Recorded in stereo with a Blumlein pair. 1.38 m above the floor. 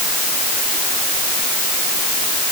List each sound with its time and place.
Only background noise.